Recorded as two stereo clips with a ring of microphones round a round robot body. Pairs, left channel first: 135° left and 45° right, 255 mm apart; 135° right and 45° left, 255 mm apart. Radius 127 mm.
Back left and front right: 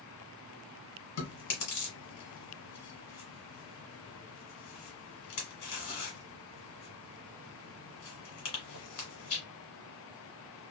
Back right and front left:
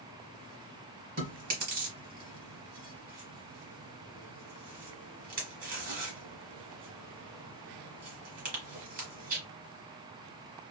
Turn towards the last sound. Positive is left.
turn(degrees=105)